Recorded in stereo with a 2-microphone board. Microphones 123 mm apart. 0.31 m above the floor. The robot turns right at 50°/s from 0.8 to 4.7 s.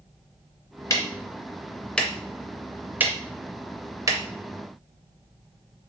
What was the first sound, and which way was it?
Ticking, 25° left (ahead or behind).